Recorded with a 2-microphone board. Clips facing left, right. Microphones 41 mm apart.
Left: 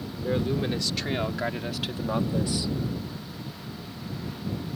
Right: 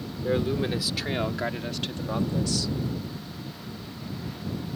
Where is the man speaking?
10° right (ahead or behind); by 2.7 s 25° left (ahead or behind).